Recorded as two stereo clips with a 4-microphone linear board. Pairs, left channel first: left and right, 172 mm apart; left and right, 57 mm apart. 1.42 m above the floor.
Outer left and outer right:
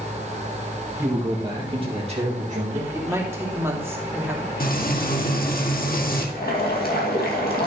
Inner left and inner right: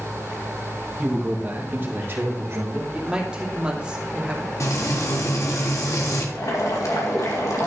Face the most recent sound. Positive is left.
turn(degrees=65)  # may be behind; listen again after turning